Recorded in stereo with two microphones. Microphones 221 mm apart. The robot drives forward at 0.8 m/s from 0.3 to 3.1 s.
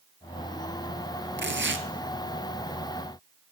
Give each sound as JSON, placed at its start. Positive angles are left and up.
{"t": 1.4, "sound": "tearing paper", "side_deg": -55, "distance_m": 1.4}